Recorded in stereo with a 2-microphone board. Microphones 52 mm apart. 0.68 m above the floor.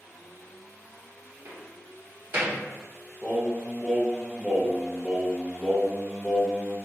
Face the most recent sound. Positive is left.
turn(degrees=-5)  # may be behind; listen again after turning